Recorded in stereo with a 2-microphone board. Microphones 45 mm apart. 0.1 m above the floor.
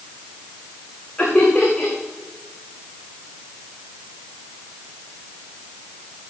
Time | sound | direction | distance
1.2 | laughter | 20° left (ahead or behind) | 8.5 m